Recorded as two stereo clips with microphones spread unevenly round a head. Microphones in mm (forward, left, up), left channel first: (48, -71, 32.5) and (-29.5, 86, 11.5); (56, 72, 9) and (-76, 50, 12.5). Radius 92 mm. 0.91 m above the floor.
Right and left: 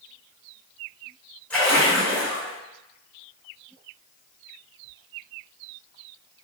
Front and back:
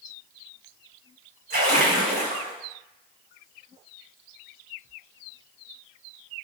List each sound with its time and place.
1.5 s a splash: 150° right, 1.2 m